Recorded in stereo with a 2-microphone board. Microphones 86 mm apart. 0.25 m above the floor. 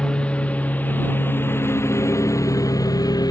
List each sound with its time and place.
0.0 s a lawn mower: 10° left (ahead or behind); by 3.3 s 50° left (ahead or behind)